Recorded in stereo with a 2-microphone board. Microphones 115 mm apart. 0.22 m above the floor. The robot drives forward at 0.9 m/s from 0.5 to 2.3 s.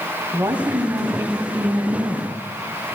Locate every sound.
0.3 s a woman speaking: 25° right (ahead or behind), 1.2 m; by 2.4 s 15° right (ahead or behind), 1.8 m